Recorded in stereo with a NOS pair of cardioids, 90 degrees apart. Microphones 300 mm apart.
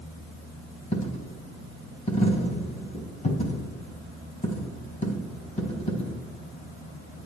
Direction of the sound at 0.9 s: 25° left.